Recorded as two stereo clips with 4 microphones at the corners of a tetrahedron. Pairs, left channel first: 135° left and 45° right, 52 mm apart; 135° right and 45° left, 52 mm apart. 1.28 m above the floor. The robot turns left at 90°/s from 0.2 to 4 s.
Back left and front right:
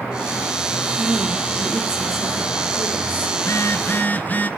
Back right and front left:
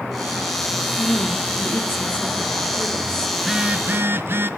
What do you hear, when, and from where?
1.0 s a woman speaking: 90° right, 3 m; by 3.3 s 65° left, 3 m
3.4 s a phone buzzing: 140° left, 1.1 m; by 4.5 s 85° left, 1.1 m